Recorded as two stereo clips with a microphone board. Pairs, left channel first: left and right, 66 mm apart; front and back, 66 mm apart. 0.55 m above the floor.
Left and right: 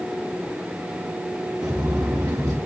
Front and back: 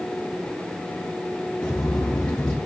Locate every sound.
1.6 s footsteps: 75° right, 4.5 m